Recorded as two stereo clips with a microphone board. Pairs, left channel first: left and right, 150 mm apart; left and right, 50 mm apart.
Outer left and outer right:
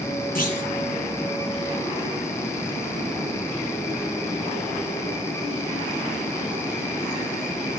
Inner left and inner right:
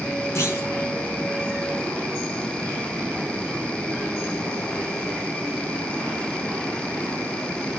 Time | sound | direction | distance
0.3 | a clunk | 65° left (ahead or behind) | 3.5 m